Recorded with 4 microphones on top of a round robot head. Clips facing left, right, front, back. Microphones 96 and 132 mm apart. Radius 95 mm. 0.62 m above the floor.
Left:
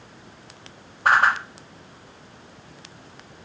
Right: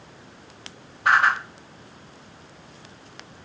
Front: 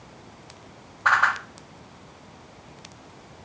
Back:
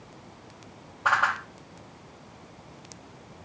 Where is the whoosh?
105° left, 1.0 m.